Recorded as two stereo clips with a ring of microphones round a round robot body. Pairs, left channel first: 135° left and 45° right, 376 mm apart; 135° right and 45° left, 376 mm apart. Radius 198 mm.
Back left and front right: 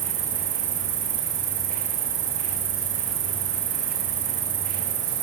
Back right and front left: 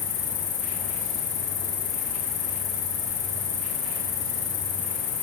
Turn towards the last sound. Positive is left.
turn(degrees=-70)